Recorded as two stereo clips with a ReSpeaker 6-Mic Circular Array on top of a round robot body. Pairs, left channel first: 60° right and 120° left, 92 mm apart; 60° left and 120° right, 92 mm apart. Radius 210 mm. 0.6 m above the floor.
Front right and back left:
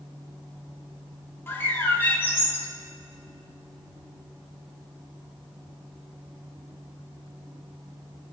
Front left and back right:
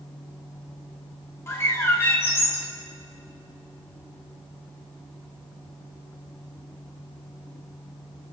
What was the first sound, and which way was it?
A bird, 5° left.